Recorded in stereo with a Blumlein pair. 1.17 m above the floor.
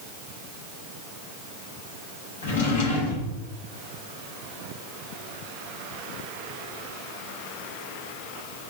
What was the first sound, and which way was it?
A drawer, 60° left.